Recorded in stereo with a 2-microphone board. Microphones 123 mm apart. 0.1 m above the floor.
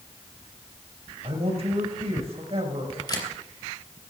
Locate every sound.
1.2 s a man speaking: 50° right (ahead or behind), 6 m
3.1 s a camera shutter: 35° left (ahead or behind), 3 m